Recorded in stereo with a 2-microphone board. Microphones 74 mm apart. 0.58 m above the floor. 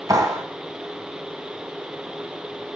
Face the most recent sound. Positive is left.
turn(degrees=-55)  # may be behind; listen again after turning